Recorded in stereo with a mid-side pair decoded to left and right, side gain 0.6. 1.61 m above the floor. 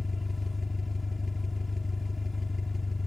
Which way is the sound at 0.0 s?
20° left.